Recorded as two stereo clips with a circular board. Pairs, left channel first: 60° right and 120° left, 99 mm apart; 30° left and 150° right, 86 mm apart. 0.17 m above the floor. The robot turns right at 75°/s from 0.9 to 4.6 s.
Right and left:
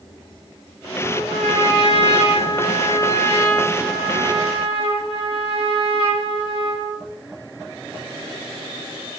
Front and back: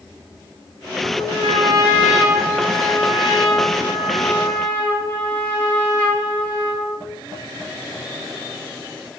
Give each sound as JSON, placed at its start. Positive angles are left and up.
{"t": 1.0, "sound": "a trumpet", "azimuth_deg": -170, "distance_m": 6.5}